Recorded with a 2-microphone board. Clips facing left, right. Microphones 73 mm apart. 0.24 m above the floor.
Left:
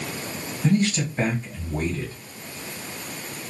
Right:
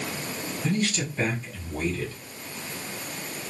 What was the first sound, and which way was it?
A man speaking, 35° left (ahead or behind).